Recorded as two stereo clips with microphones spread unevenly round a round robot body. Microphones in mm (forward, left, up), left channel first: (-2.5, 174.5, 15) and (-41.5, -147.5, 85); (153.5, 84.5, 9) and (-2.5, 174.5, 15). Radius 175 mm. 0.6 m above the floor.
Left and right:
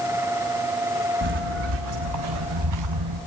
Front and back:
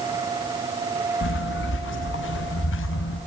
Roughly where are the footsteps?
Ahead right.